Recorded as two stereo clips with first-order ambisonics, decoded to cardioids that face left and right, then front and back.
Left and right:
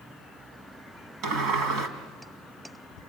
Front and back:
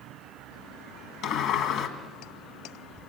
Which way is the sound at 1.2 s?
40° right.